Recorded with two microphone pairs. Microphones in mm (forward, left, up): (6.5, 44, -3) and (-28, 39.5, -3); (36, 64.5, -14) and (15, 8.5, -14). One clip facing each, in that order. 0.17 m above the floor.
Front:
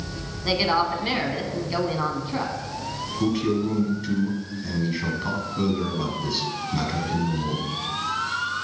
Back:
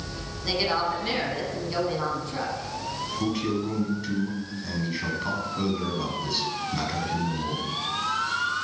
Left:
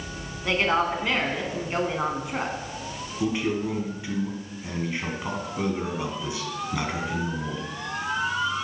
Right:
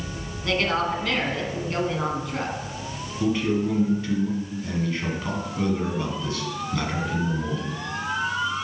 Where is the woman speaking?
40° left, 1.2 m.